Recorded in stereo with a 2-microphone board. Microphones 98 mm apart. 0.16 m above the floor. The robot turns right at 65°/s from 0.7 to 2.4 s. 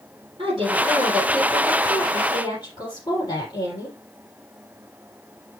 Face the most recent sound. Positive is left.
turn(degrees=55)